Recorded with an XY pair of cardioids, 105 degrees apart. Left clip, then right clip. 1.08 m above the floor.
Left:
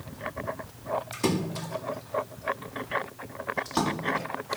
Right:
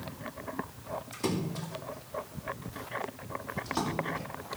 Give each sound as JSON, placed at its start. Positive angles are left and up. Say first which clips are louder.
{"t": 1.1, "sound": "a splash", "louder": "left 5 dB", "azimuth_deg": 40, "distance_m": 2.5}